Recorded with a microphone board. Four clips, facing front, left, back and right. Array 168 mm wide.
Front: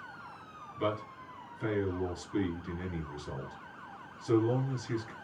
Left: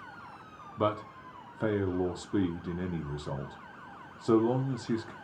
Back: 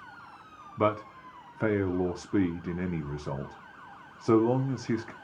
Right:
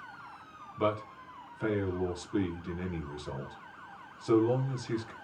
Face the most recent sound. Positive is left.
turn(degrees=155)